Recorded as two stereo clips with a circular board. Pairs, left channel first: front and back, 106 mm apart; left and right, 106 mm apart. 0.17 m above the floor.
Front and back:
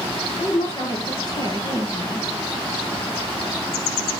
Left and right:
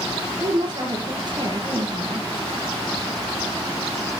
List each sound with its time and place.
0.4 s a woman speaking: 45° right, 3 m